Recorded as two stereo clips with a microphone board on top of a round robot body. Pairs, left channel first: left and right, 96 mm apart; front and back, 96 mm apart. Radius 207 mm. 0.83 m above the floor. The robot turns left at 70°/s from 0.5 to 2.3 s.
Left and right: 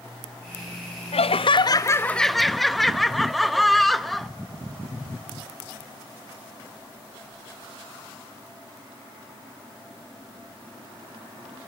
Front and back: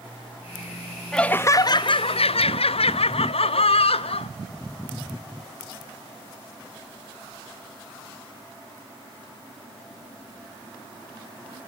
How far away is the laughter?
About 1.1 m.